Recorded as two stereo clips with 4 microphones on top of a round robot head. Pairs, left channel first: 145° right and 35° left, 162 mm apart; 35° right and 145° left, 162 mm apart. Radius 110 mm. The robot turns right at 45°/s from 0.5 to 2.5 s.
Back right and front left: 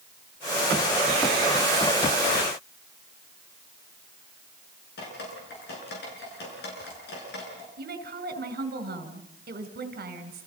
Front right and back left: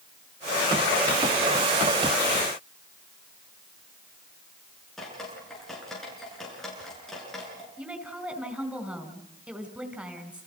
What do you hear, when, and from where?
5.0 s dripping: 125° right, 8.5 m
7.8 s a woman speaking: 60° left, 4 m